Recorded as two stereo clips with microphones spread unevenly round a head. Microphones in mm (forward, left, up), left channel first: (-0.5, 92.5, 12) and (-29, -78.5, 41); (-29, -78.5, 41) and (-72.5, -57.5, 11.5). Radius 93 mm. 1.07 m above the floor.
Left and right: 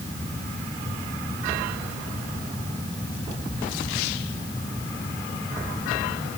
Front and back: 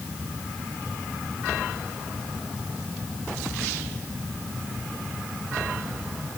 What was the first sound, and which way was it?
Only background noise.